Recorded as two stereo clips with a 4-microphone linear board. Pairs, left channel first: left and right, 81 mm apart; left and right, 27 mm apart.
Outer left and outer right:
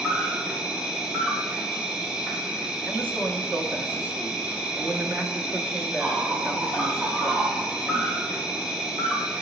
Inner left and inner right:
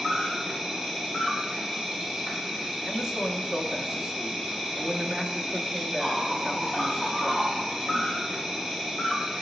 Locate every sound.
0.0 s an insect: 10° right (ahead or behind), 1.2 m
2.8 s a man speaking: 25° right (ahead or behind), 0.8 m